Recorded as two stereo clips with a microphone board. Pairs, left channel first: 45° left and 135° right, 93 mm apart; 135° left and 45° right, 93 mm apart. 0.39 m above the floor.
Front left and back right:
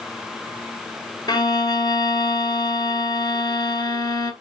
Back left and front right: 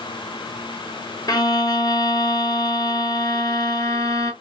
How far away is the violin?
About 1.4 m.